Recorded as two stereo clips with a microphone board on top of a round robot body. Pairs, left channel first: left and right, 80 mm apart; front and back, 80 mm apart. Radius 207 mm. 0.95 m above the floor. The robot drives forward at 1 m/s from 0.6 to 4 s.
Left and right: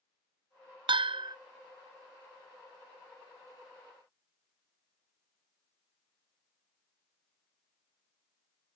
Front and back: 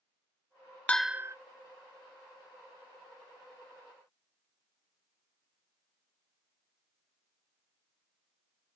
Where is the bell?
75° right, 0.5 m; by 1.4 s 125° right, 0.6 m.